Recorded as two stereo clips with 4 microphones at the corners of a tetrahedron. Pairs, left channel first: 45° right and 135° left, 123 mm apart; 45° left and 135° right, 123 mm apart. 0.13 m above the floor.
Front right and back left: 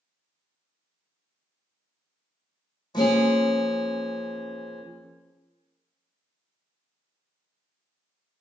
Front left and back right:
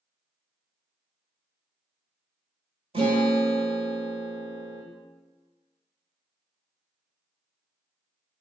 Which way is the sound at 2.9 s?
95° right.